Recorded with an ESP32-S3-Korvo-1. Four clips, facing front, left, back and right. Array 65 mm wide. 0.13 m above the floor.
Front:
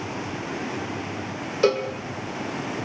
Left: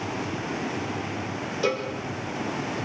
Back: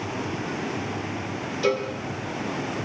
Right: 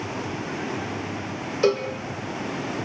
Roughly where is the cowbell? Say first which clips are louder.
Right 5 dB, front 3 dB; ahead right.